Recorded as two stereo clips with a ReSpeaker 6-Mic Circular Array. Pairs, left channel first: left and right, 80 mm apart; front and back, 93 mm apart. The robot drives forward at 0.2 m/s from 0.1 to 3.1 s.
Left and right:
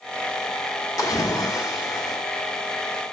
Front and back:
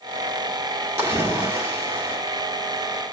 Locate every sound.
1.0 s a splash: 120° left, 2 m; by 2.2 s 125° left, 2 m